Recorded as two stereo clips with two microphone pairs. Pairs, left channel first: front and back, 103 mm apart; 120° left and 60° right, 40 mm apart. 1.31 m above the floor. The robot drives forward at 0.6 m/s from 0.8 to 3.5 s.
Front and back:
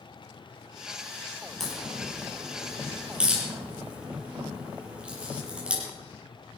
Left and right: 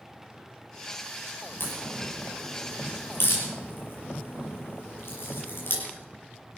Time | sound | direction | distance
1.6 | a crack | 90° left | 5.5 m